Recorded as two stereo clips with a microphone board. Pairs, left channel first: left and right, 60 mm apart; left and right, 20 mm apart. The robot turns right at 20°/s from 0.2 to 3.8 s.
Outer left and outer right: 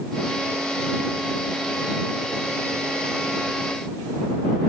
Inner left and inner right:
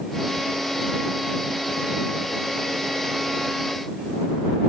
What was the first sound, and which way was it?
Only background noise.